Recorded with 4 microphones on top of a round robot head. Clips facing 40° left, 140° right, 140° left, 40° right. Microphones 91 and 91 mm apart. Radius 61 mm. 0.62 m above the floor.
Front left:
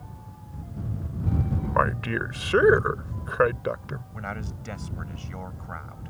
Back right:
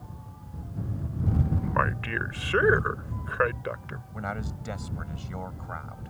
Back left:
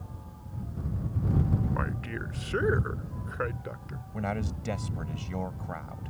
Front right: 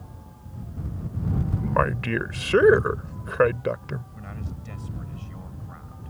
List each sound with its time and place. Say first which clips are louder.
1.6 s a man speaking: front left 7 dB, front right 9 dB; 25° right
4.1 s a man speaking: back right 3 dB, back left 6 dB; 140° left